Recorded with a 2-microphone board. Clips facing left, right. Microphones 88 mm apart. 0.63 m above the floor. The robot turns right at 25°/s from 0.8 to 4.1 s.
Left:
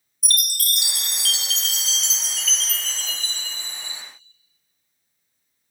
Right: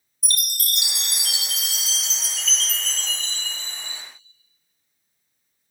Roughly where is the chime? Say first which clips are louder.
Left 3 dB; ahead right.